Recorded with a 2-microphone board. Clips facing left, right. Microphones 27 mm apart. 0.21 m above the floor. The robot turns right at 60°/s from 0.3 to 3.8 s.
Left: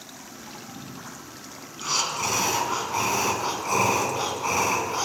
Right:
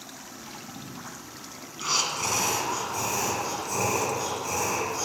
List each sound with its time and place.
1.8 s breathing: 10° right, 1.9 m; by 5.0 s 110° left, 1.9 m